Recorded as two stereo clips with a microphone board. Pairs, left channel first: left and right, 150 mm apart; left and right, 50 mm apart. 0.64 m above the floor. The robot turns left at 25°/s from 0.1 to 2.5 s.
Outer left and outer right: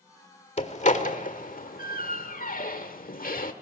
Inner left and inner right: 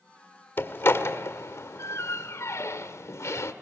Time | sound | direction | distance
0.6 | a door slam | 50° left (ahead or behind) | 1.6 m